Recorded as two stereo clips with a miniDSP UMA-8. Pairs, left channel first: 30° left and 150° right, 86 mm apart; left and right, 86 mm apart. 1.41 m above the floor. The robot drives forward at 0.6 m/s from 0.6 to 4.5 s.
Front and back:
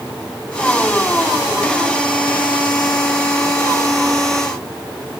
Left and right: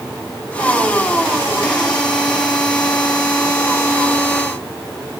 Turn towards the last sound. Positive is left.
No sound to turn to.